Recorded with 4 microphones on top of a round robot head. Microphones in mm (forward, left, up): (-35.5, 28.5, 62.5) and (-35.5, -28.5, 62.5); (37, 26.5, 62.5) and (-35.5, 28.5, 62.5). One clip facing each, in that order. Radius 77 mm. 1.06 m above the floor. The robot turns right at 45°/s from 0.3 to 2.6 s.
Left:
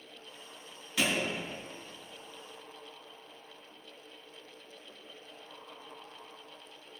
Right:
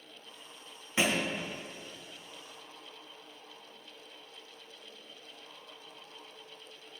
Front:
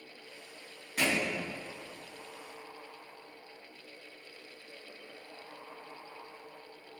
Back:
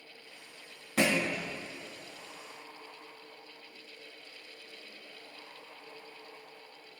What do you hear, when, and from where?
1.0 s a thud: 155° right, 2.5 m; by 1.3 s 140° right, 2.5 m